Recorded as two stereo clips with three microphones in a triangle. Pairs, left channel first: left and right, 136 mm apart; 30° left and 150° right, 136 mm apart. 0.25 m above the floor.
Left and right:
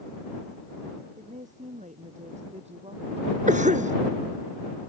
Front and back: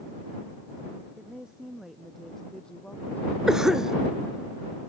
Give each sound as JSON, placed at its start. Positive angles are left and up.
{"t": 1.2, "sound": "a woman speaking", "azimuth_deg": -65}
{"t": 3.5, "sound": "a cough", "azimuth_deg": -65}